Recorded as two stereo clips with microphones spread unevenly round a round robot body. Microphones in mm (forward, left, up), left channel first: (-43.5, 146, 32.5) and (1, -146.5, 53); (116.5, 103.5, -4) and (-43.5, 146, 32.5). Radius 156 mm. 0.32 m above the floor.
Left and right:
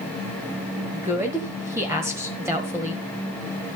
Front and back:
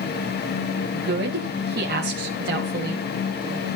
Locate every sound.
0.9 s a woman speaking: 165° right, 1.6 m